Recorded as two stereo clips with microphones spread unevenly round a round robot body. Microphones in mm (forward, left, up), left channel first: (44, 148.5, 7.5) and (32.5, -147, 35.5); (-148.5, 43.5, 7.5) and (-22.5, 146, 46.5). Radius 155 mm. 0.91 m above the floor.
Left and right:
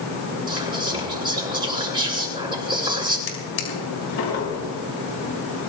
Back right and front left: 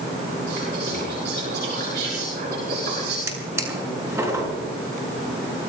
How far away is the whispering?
About 9 m.